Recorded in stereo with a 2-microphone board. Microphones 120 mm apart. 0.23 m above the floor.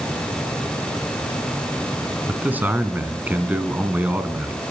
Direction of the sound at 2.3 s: 15° right (ahead or behind).